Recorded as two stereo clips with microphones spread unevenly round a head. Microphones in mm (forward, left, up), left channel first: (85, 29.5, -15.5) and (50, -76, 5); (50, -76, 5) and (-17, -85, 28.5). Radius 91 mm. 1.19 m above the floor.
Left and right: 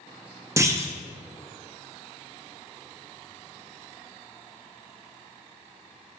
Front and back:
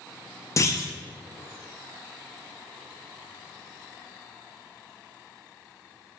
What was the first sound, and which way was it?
A clunk, 45° right.